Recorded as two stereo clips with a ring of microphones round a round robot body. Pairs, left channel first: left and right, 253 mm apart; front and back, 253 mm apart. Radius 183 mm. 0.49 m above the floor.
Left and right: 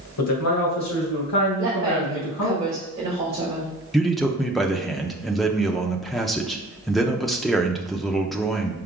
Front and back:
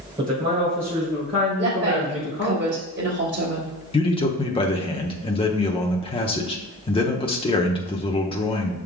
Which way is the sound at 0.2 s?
105° left.